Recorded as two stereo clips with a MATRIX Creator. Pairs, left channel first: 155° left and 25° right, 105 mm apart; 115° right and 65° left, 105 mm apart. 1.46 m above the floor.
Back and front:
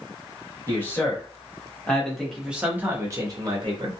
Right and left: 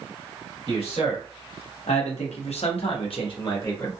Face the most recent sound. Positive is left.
turn(degrees=-55)